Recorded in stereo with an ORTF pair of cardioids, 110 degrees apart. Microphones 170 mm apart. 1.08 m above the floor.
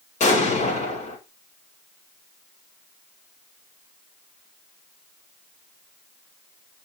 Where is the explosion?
45° left, 5 m.